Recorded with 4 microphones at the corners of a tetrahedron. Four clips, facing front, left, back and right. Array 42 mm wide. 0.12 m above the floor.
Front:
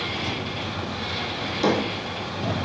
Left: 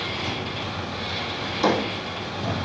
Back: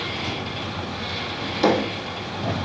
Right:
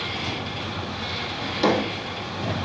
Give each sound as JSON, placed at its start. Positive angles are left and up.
{"t": 1.4, "sound": "a drawer", "azimuth_deg": -125, "distance_m": 1.7}